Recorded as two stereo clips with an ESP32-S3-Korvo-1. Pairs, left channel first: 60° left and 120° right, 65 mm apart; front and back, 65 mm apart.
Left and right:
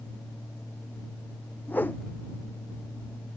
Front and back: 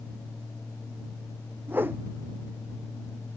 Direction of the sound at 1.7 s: 120° left.